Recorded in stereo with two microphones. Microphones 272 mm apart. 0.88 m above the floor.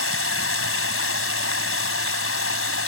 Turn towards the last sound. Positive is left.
turn(degrees=55)  # may be behind; listen again after turning